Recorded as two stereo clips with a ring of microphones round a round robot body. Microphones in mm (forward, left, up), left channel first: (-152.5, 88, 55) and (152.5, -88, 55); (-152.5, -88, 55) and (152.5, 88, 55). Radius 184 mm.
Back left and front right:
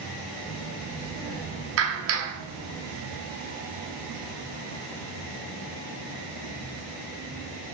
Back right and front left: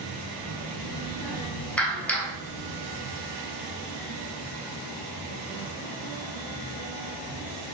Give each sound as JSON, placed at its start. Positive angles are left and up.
{"t": 0.4, "sound": "a child speaking", "azimuth_deg": -125, "distance_m": 2.0}
{"t": 1.8, "sound": "a clap", "azimuth_deg": -65, "distance_m": 0.8}